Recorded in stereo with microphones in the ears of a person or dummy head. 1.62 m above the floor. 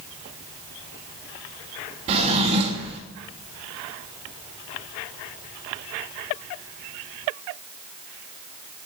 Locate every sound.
2.1 s a drawer: 25° right (ahead or behind), 1.5 m